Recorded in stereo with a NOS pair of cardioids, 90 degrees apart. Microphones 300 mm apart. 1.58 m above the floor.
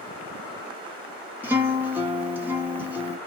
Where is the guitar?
5° right, 1.2 m.